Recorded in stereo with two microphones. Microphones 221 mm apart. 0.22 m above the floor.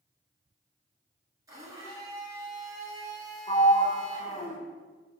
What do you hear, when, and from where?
1.5 s a blender: 15° right (ahead or behind), 1.4 m
3.5 s a sliding door: 30° left (ahead or behind), 0.6 m